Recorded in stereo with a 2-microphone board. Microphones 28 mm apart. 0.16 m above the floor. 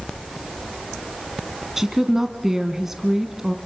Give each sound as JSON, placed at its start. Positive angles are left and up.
{"t": 1.8, "sound": "a woman speaking", "side_deg": -15, "distance_m": 1.2}